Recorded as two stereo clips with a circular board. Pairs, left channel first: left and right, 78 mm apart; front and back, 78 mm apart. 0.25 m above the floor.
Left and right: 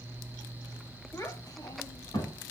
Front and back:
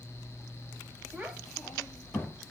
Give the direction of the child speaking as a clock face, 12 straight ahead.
8 o'clock.